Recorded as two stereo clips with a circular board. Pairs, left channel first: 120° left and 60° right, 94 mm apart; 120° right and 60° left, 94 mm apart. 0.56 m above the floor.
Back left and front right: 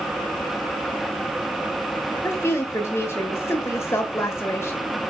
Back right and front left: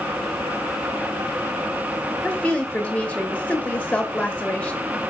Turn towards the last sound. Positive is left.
turn(degrees=165)